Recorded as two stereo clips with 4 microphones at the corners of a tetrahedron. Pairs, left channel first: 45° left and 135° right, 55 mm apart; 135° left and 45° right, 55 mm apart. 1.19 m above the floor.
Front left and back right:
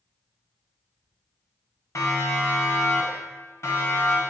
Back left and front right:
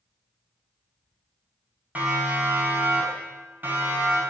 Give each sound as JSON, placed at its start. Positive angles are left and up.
{"t": 1.9, "sound": "a siren", "azimuth_deg": 15, "distance_m": 9.0}